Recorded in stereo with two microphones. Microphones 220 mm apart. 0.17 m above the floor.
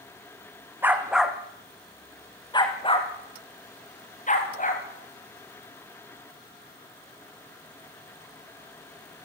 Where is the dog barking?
10° right (ahead or behind), 2.5 m; by 4.8 s 40° left (ahead or behind), 5 m.